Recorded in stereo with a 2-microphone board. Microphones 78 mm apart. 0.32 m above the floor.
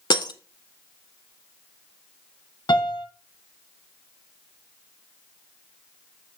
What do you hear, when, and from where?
0.1 s breaking glass: 70° left (ahead or behind), 1.0 m
2.7 s a piano: 75° left (ahead or behind), 1.2 m